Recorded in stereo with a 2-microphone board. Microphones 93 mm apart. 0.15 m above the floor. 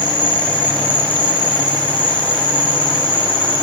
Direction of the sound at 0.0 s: 55° left (ahead or behind).